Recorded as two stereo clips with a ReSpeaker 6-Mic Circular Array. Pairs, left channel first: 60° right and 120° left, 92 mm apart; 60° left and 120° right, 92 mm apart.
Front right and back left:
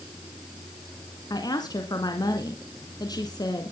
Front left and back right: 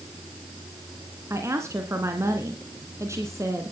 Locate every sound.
1.3 s a woman speaking: 75° right, 2 m